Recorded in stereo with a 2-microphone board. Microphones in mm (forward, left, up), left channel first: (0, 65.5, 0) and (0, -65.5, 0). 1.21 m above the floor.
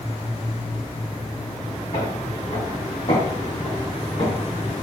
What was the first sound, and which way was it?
Footsteps, 65° left (ahead or behind).